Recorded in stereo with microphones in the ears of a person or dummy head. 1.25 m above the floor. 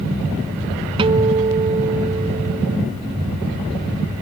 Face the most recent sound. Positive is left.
turn(degrees=-30)  # may be behind; listen again after turning